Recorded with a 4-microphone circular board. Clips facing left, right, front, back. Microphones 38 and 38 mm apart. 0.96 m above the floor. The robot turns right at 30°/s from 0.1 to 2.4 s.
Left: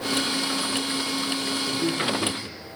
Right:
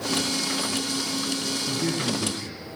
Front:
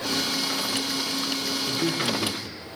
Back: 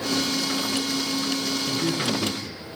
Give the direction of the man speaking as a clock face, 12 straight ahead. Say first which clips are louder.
Left 1 dB, front 1 dB; 11 o'clock.